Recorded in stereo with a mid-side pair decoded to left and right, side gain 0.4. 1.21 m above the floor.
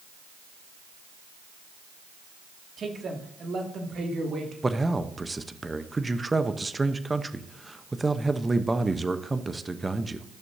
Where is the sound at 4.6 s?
20° right, 0.9 m.